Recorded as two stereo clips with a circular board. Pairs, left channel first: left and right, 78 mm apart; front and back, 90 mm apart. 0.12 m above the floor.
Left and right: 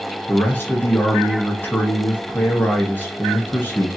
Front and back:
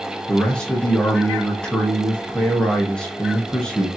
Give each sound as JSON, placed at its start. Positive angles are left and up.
{"t": 0.3, "sound": "a man speaking", "azimuth_deg": 70, "distance_m": 1.4}